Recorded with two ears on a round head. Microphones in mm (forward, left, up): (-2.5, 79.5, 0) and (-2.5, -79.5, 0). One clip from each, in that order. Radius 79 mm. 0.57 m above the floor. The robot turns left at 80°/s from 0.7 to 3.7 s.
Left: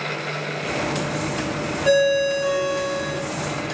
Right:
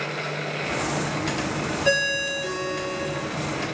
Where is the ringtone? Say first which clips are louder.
Left 5 dB; 155° right, 1.1 m; by 3.2 s 100° left, 1.1 m.